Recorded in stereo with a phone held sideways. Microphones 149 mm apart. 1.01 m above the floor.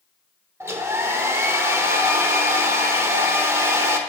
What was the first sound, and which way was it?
A hair dryer, 15° right (ahead or behind).